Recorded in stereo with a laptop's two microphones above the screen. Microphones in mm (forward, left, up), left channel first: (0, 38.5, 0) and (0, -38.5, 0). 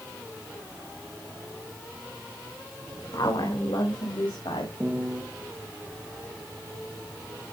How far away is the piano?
About 3 m.